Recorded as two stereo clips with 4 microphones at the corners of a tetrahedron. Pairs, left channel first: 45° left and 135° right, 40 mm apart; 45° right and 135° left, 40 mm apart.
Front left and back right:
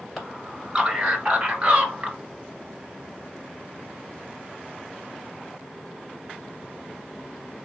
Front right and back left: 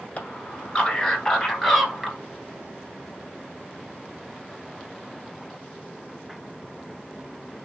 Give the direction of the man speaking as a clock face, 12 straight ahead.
2 o'clock.